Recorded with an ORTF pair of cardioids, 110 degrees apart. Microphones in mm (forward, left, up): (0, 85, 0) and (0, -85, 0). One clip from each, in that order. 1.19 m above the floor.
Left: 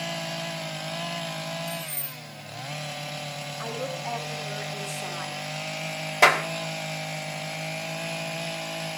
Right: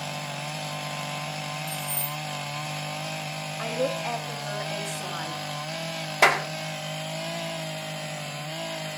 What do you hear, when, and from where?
1.7 s keys jangling: 30° right, 2 m
3.6 s a woman speaking: 45° right, 7 m
6.2 s a clap: straight ahead, 2 m